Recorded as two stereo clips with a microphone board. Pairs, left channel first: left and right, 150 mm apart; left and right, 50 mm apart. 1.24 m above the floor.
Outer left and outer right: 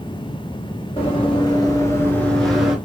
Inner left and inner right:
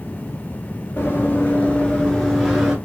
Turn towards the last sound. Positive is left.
turn(degrees=-5)  # may be behind; listen again after turning